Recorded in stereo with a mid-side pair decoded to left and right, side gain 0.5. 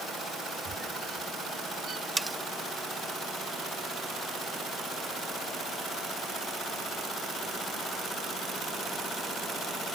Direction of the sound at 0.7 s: 40° right.